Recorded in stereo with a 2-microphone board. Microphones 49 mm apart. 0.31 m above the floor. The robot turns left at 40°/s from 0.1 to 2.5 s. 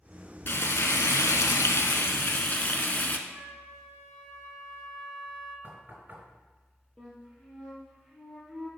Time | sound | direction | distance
0.5 | frying | 125° left | 0.8 m
3.3 | a flute | 20° left (ahead or behind) | 2.5 m
5.6 | knocking | 40° right (ahead or behind) | 2.5 m
7.0 | a flute | 15° left (ahead or behind) | 3 m